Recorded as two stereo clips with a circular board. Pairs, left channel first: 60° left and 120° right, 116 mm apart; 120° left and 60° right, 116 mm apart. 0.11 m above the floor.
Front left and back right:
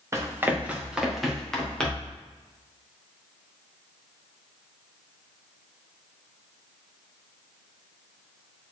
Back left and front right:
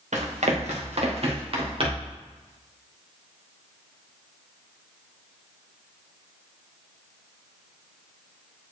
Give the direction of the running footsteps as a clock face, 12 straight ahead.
2 o'clock.